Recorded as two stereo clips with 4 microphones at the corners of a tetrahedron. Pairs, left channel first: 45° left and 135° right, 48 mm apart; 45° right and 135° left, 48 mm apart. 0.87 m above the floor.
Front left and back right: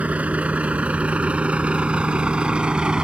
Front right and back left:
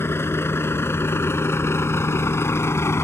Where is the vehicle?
75° right; by 3.0 s 65° right.